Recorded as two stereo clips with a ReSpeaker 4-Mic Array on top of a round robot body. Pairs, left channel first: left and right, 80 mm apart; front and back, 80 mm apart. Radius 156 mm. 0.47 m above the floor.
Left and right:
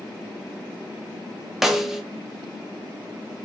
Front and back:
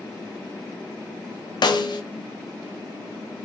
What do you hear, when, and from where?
1.6 s a snare drum: 5° right, 0.7 m